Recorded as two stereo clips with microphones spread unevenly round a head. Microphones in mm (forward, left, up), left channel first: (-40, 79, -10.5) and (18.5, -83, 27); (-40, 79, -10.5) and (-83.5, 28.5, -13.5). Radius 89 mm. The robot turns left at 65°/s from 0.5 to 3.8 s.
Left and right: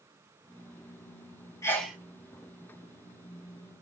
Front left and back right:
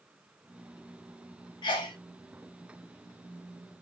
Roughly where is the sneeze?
Ahead left.